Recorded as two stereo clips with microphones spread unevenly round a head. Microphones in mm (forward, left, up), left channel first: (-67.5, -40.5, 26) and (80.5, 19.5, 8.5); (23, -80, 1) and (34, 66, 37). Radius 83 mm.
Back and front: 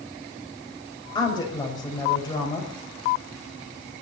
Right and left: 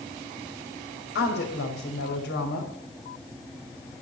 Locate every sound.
1.1 s a woman speaking: 90° right, 4.5 m